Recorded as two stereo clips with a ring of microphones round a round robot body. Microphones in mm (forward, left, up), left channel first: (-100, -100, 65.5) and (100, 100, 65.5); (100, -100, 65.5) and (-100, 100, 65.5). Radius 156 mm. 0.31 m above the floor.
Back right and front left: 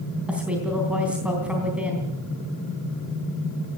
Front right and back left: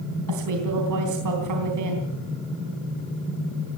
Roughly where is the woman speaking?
Behind left.